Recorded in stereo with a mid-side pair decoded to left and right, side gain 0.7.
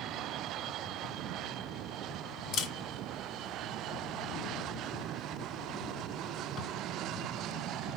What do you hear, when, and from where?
2.5 s a camera shutter: 50° left, 2.5 m